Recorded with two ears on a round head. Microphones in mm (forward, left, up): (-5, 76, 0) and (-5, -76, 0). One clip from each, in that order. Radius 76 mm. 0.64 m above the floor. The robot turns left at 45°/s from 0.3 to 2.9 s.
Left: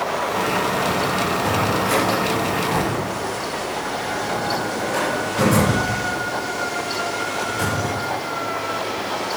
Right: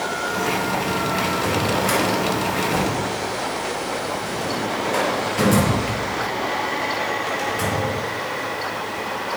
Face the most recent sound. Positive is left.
turn(degrees=-15)  # may be behind; listen again after turning